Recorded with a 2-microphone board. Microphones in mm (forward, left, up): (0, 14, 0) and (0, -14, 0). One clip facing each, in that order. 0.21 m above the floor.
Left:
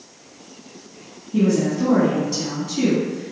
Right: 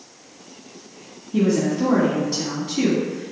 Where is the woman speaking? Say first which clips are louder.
Left 1 dB; 10° right (ahead or behind), 1.7 m.